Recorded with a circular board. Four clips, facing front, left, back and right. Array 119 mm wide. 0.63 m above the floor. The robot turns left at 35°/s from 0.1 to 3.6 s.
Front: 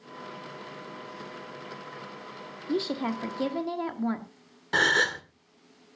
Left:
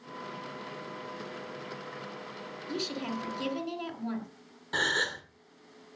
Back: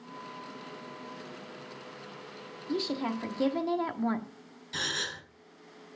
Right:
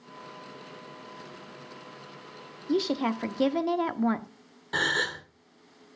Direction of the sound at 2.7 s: 65° right.